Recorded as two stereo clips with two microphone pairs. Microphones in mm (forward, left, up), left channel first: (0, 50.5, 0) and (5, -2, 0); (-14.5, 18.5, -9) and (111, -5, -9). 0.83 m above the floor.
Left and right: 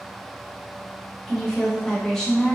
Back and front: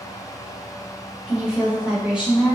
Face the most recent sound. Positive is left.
turn(degrees=45)